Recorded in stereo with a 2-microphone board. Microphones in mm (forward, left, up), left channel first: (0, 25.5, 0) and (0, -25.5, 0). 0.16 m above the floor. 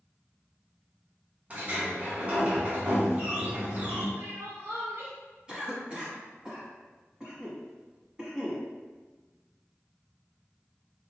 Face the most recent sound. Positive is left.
turn(degrees=-15)  # may be behind; listen again after turning